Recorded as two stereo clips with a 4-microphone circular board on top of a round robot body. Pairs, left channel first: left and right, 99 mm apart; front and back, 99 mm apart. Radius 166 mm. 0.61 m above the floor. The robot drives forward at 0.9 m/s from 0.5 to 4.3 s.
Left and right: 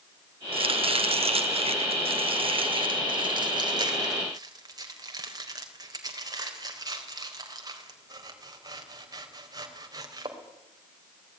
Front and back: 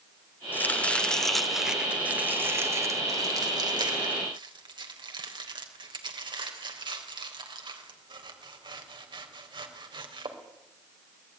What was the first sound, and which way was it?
Chopping, 70° right.